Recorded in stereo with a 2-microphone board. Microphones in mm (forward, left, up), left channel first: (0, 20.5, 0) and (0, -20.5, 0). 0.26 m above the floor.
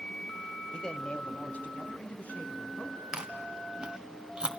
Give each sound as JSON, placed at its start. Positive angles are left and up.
{"t": 0.7, "sound": "a man speaking", "side_deg": 25, "distance_m": 1.1}
{"t": 3.1, "sound": "chewing", "side_deg": -20, "distance_m": 1.5}